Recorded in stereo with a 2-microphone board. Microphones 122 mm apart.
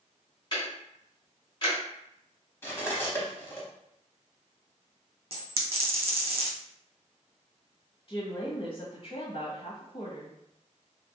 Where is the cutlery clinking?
20° left (ahead or behind), 0.8 m.